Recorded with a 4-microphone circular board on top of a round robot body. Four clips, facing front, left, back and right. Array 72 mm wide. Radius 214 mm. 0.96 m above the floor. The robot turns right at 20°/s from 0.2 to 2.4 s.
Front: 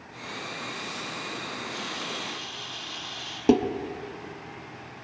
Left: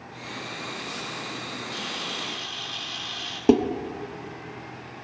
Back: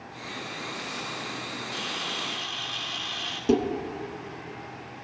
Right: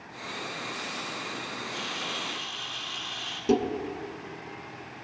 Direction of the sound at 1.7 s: 140° left.